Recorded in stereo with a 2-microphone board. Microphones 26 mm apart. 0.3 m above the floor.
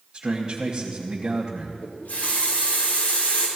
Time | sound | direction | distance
0.1 | a man speaking | 30° right (ahead or behind) | 1.6 m
1.8 | a running tap | 80° left | 4.5 m